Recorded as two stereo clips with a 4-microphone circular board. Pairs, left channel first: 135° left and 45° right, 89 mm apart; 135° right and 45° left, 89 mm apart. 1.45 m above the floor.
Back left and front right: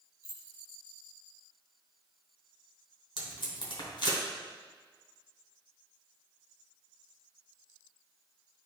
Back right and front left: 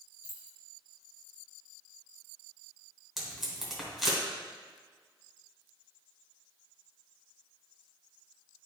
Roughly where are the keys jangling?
Behind.